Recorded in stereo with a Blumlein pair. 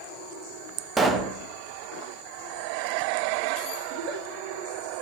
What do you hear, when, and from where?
1.0 s a pop: 10° right, 1.1 m
3.9 s a giggle: 40° right, 2 m